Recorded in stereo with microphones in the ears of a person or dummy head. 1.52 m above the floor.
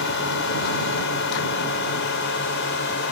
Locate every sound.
0.0 s a drone: 55° left (ahead or behind); by 3.1 s 50° left (ahead or behind)